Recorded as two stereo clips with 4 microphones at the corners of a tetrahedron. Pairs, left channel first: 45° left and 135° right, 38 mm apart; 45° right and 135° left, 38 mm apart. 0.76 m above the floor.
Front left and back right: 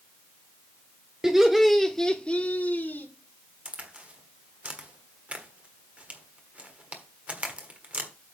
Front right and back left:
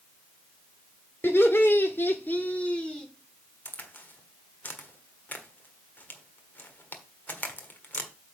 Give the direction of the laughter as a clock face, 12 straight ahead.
2 o'clock.